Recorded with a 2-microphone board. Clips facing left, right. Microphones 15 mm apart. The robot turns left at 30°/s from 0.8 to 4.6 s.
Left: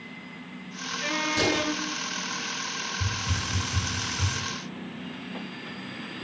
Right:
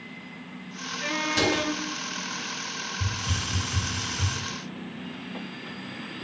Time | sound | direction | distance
1.3 | a door slam | 25° right (ahead or behind) | 6.5 m
3.0 | a hiss | 145° right | 3 m